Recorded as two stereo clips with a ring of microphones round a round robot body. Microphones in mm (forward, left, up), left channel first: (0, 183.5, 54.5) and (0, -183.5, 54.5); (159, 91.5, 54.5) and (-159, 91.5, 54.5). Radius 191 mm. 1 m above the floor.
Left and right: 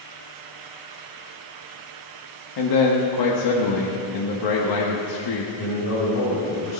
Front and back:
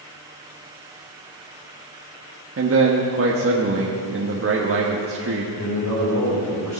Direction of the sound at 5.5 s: 45° left.